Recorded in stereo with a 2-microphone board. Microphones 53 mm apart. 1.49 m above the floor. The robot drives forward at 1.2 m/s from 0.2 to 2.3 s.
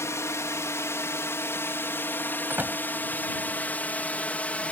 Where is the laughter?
I don't hear laughter.